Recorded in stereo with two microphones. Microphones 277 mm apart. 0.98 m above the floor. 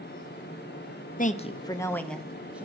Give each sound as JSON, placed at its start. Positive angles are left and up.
{"t": 1.2, "sound": "a woman speaking", "side_deg": 30, "distance_m": 0.8}